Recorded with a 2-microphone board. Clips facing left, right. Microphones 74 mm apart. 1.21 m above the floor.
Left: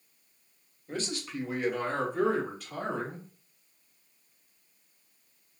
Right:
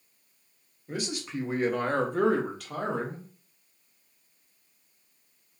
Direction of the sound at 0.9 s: 5° right (ahead or behind).